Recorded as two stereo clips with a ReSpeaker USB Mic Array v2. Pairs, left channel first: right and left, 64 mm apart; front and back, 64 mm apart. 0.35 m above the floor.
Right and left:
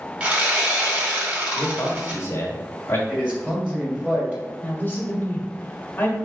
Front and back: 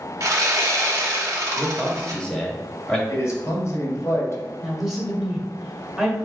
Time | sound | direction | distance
0.2 | sawing | 155° left | 1.3 m
1.6 | a man speaking | 75° right | 1.1 m
3.1 | a man speaking | 20° left | 2.0 m
4.6 | a woman speaking | 100° right | 1.2 m